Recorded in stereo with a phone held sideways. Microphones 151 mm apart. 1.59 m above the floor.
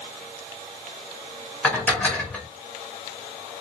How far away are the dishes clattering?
About 1.1 m.